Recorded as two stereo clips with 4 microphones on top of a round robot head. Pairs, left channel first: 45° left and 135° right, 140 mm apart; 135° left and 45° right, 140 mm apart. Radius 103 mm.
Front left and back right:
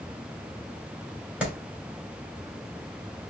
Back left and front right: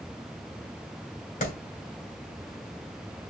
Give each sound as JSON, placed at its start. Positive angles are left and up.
{"t": 1.4, "sound": "a clap", "azimuth_deg": 145, "distance_m": 3.0}